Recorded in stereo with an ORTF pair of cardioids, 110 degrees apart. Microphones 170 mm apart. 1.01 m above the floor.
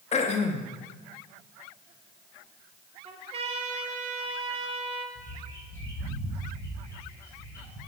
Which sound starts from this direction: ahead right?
A trumpet, at 3.0 s.